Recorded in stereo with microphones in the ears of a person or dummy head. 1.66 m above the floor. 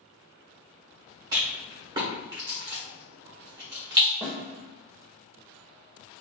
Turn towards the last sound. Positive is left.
turn(degrees=25)  # may be behind; listen again after turning